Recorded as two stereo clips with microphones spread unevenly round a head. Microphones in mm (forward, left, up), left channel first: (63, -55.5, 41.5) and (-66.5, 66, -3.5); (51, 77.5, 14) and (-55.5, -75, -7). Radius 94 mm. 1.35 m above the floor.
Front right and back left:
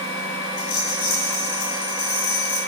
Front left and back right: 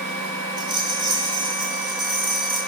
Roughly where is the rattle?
Ahead right.